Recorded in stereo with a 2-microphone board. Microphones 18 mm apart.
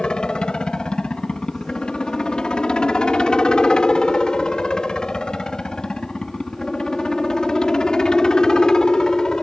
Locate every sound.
0.0 s a helicopter: 60° left (ahead or behind); by 9.4 s 40° left (ahead or behind)